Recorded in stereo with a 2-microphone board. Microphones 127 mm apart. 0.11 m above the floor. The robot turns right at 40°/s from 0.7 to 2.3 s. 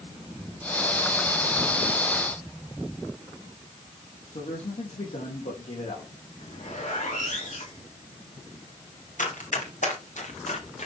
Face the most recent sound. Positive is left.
turn(degrees=70)  # may be behind; listen again after turning